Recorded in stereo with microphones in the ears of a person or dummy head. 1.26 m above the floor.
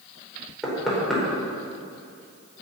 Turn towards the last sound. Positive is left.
turn(degrees=-5)  # may be behind; listen again after turning